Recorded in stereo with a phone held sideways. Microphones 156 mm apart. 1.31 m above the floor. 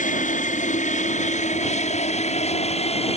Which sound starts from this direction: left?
An aircraft, at 0.0 s.